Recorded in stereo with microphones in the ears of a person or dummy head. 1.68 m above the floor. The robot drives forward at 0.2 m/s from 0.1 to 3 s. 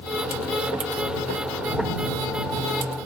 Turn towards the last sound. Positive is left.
No sound to turn to.